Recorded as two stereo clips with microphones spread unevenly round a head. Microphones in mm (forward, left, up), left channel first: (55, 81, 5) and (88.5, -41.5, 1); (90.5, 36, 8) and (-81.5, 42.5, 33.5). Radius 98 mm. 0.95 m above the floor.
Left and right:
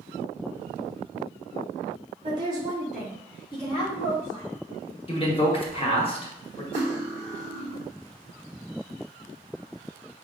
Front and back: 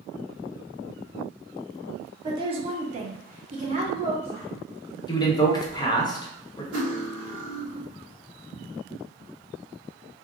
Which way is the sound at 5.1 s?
60° left.